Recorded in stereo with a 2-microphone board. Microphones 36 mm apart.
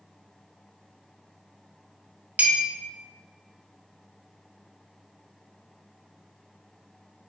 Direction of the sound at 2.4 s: 45° right (ahead or behind).